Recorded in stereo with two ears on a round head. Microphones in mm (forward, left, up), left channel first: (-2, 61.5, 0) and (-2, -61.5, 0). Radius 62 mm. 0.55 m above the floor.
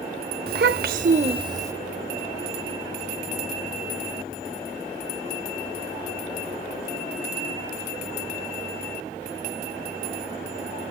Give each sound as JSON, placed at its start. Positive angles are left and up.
{"t": 0.5, "sound": "a child speaking", "side_deg": -75, "distance_m": 1.1}